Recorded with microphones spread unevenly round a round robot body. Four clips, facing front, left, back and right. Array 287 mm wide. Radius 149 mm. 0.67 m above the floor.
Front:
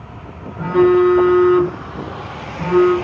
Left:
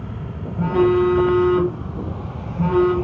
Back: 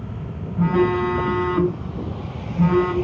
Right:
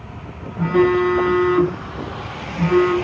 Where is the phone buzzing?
175° left, 4 m.